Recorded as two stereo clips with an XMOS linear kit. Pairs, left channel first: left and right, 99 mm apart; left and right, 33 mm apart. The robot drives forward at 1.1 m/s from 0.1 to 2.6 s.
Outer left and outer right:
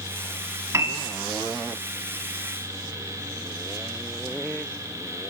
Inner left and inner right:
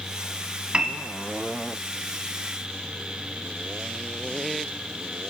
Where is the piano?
30° right (ahead or behind), 1.3 m.